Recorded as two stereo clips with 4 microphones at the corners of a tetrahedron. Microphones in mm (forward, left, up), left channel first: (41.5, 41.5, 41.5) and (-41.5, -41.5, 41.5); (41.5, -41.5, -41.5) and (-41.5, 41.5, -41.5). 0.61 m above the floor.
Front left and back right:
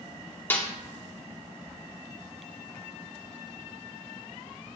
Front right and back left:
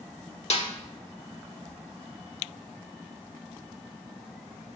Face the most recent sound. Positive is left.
turn(degrees=-25)